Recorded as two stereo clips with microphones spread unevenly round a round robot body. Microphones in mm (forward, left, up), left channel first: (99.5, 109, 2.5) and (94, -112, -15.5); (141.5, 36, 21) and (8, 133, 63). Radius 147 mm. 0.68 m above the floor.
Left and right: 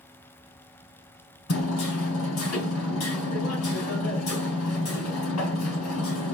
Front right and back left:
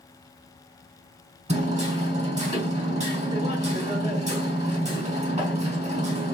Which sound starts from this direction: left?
Hammering, at 1.5 s.